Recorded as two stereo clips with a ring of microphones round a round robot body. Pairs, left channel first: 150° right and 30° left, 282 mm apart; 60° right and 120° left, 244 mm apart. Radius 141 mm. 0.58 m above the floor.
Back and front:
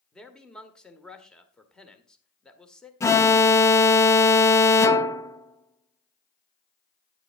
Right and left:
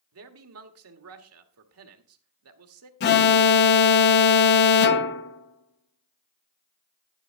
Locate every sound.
0.1 s a man speaking: 125° left, 1.6 m
3.0 s an alarm: 75° right, 0.6 m